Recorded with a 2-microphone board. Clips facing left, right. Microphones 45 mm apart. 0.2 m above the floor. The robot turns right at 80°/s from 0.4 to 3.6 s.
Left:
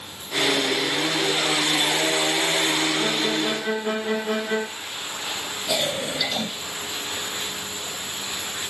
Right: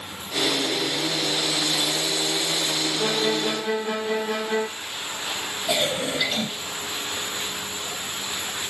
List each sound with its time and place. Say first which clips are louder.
3.0 s a violin: even; 20° right, 5 m; by 4.7 s 30° left, 5 m
5.7 s a cough: right 1 dB; 20° right (ahead or behind), 7 m